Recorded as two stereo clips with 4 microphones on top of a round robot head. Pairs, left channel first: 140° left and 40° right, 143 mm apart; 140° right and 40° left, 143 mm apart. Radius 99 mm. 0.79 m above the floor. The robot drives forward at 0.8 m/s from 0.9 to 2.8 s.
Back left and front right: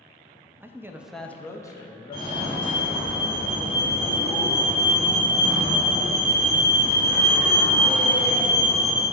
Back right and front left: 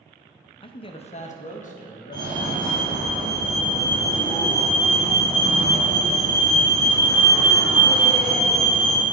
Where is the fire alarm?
Straight behind, 2 m.